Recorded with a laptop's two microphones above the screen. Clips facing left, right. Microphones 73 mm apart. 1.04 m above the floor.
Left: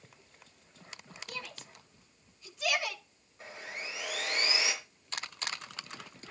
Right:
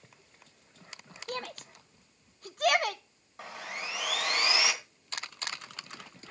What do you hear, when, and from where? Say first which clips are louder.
1.3 s a shout: right 8 dB; 45° right (ahead or behind), 0.8 m
3.4 s sawing: right 3 dB; 75° right (ahead or behind), 2.5 m